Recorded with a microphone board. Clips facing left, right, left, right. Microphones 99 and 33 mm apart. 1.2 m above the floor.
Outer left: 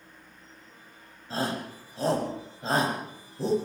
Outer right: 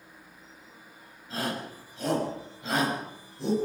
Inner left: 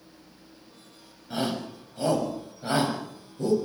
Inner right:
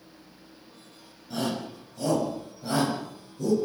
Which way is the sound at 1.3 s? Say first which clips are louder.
Outer left 2 dB, inner left 1 dB; 35° left (ahead or behind).